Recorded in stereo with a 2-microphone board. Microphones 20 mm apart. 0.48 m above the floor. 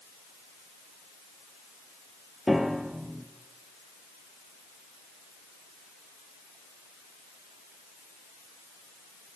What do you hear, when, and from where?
2.5 s a piano: 15° right (ahead or behind), 2.5 m